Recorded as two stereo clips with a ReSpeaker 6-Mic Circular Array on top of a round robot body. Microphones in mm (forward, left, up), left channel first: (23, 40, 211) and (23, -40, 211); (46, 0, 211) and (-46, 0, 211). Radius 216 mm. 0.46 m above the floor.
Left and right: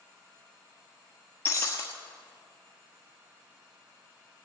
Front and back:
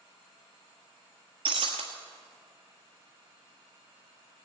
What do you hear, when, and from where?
1.4 s breaking glass: 155° left, 0.9 m